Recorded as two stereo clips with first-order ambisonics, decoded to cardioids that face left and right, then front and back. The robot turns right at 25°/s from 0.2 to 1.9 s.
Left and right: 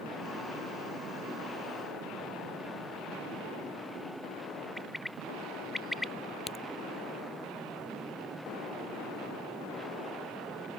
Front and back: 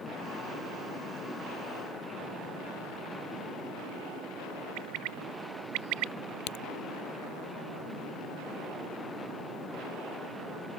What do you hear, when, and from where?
4.8 s a bird: straight behind
6.5 s a crack: 15° left